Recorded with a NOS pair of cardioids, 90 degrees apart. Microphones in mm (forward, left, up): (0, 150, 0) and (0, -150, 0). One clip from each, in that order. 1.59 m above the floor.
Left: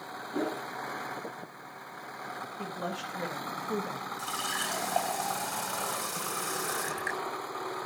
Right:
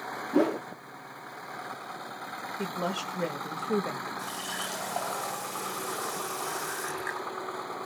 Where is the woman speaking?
35° right, 2.5 m.